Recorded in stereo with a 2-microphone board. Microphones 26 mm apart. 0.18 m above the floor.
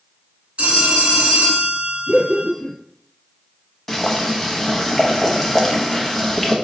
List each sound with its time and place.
0.6 s a phone ringing: 50° right (ahead or behind), 1.4 m
2.1 s laughter: centre (ahead or behind), 1.6 m
3.9 s boiling: 15° left (ahead or behind), 0.7 m